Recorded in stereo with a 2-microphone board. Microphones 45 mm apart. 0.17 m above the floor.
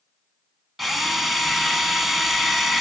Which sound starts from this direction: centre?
A drill, at 0.8 s.